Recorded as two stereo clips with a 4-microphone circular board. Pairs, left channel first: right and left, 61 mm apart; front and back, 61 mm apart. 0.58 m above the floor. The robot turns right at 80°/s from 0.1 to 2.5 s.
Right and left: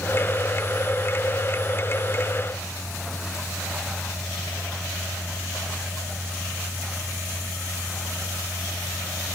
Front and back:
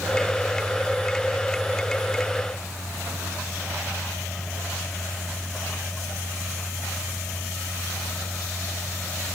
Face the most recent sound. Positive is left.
No sound to turn to.